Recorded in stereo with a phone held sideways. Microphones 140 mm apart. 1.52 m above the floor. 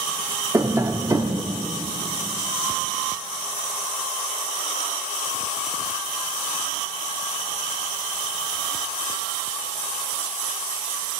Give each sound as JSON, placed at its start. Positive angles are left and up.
{"t": 0.5, "sound": "tapping", "side_deg": -20, "distance_m": 0.5}